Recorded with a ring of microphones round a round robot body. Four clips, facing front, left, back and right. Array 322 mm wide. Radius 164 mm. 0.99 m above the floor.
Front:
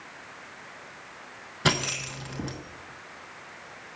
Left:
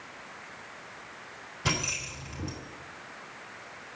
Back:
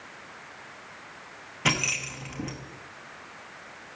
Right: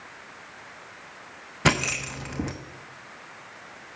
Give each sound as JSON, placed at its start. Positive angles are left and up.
{"t": 1.6, "sound": "keys jangling", "azimuth_deg": -80, "distance_m": 0.7}